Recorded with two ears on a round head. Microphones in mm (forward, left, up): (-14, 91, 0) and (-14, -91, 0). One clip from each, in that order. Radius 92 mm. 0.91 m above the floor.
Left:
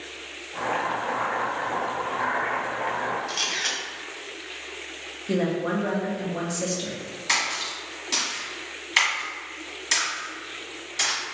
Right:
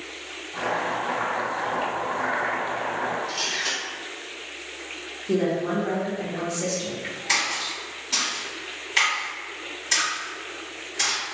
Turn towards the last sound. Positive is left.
turn(degrees=40)  # may be behind; listen again after turning